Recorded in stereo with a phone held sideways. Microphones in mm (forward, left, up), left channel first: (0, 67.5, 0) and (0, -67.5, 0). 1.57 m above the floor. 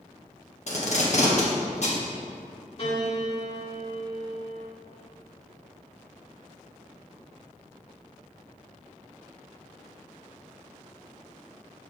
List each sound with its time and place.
0.7 s tape being pulled: 55° left (ahead or behind), 1.4 m
2.8 s a piano: 45° left (ahead or behind), 2.5 m